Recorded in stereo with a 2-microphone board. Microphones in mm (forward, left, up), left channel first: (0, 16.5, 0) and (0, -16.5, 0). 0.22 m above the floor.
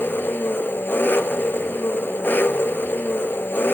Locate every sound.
0.0 s an engine running: 80° left, 1.1 m